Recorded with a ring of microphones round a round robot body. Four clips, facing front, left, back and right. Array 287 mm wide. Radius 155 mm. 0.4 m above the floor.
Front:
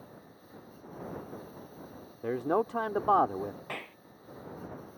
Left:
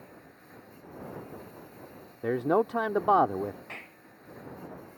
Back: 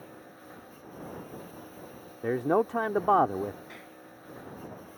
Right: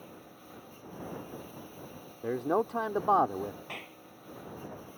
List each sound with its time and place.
0.0 s a lawn mower: 165° right
2.2 s a man speaking: 135° left
3.7 s a clap: 10° right